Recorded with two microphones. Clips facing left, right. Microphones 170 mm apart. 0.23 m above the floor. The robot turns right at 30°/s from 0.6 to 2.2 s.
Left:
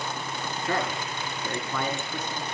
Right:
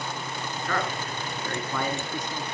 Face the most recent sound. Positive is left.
turn(degrees=-165)